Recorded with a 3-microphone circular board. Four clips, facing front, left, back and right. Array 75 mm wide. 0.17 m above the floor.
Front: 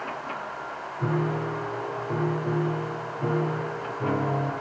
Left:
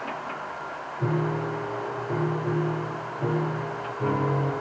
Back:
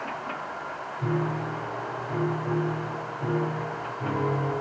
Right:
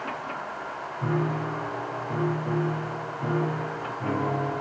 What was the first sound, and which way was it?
A piano, 60° left.